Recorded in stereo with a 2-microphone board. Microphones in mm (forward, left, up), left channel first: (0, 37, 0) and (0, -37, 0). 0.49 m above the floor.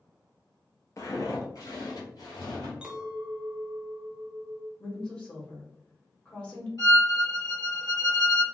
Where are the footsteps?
45° left (ahead or behind), 0.7 m; by 2.7 s 65° left (ahead or behind), 1.5 m.